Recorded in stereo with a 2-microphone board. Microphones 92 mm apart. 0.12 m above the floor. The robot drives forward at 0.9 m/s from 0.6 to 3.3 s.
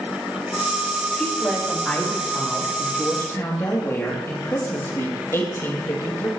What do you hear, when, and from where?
1.2 s a woman speaking: 20° left (ahead or behind), 5.5 m; by 6.3 s 30° left (ahead or behind), 4 m